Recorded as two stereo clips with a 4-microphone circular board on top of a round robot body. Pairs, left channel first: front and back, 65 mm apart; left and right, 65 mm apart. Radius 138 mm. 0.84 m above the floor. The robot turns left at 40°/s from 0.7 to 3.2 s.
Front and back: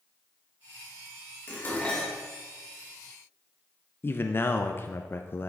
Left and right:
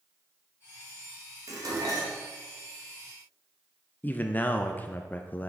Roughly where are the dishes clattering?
Ahead right.